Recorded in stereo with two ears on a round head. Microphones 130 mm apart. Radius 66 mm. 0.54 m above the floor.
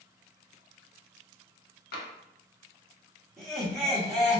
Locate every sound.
1.9 s tapping: 70° left (ahead or behind), 0.6 m
3.4 s laughter: 5° left (ahead or behind), 1.4 m